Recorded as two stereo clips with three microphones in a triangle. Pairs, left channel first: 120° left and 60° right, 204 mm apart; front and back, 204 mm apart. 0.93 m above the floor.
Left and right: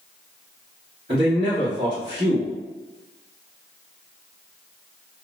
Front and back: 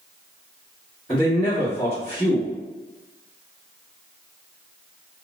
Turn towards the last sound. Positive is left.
turn(degrees=-60)